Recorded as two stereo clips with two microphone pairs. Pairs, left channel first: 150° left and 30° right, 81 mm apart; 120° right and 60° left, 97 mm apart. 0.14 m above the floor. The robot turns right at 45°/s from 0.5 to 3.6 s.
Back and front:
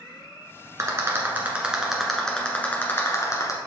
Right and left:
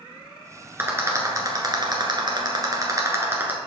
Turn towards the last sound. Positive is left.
turn(degrees=130)